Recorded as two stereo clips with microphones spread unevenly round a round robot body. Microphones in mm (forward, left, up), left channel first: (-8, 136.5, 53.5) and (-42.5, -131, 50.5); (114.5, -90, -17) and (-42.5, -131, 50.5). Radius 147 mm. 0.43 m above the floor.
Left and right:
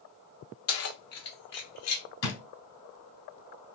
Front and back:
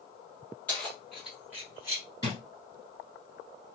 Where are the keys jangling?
75° left, 0.9 m; by 2.0 s 105° left, 1.3 m.